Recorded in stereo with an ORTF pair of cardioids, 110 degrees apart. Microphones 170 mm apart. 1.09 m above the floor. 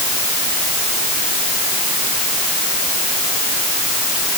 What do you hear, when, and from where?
Only background noise.